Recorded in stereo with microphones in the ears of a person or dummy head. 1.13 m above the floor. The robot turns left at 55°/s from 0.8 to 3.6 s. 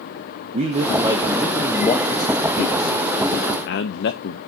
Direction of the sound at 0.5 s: 35° right (ahead or behind).